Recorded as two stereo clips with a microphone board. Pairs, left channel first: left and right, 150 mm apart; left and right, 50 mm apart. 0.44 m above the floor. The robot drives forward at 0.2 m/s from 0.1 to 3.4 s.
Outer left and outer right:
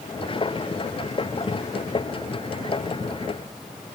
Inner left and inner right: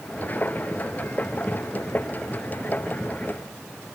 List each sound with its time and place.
Only background noise.